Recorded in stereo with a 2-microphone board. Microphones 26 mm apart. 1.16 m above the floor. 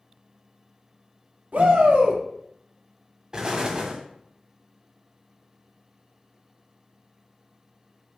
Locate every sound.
1.5 s a shout: 70° right (ahead or behind), 2 m
3.3 s an explosion: 30° right (ahead or behind), 1.4 m